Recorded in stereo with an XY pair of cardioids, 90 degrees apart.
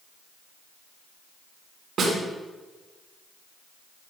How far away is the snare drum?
About 4 m.